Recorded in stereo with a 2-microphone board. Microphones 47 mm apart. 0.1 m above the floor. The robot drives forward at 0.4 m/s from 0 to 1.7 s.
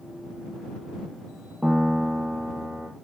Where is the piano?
20° right (ahead or behind), 4 m.